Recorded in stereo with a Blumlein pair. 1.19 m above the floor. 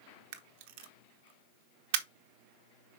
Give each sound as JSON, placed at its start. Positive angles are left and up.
{"t": 0.3, "sound": "a camera shutter", "azimuth_deg": -50, "distance_m": 0.9}